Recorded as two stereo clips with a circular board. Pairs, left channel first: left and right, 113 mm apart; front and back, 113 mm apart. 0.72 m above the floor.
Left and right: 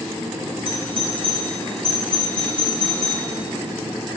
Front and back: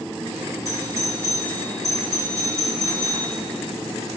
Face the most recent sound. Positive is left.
turn(degrees=-120)